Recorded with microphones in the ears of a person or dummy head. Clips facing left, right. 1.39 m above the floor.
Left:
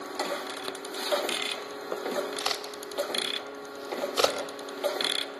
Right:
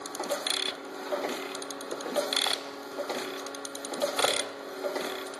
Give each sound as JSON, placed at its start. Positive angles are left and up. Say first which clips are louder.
{"t": 2.4, "sound": "a crack", "louder": "left 1 dB", "side_deg": 50, "distance_m": 4.0}